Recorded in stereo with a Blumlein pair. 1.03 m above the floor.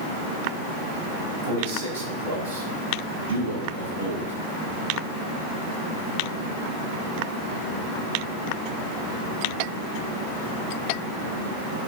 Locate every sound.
1.4 s a man speaking: 55° right, 6 m; by 4.3 s 75° right, 9 m